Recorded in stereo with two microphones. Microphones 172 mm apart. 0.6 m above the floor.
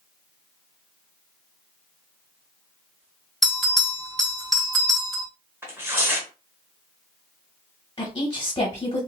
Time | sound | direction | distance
3.4 | a bell | centre (ahead or behind) | 1.9 m
5.6 | tearing paper | 15° right (ahead or behind) | 1.0 m
8.0 | a woman speaking | 30° left (ahead or behind) | 1.0 m